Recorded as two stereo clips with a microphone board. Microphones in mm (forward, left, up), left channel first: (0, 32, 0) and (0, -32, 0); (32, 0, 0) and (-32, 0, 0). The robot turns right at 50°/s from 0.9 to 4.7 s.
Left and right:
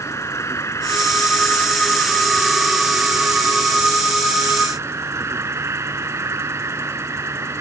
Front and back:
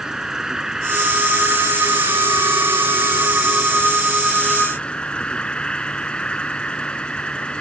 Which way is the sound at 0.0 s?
100° left.